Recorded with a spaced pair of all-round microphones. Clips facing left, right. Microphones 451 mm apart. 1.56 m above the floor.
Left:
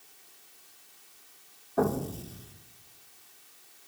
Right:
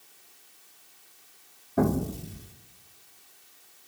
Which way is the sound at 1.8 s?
40° right (ahead or behind).